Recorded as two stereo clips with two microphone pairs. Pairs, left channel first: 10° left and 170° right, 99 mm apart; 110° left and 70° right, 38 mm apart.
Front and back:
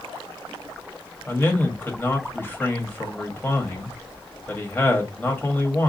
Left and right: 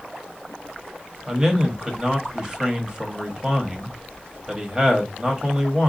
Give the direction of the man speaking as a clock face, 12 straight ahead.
1 o'clock.